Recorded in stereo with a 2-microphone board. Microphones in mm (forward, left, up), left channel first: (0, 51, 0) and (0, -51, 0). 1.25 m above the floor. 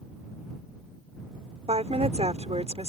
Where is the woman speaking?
80° right.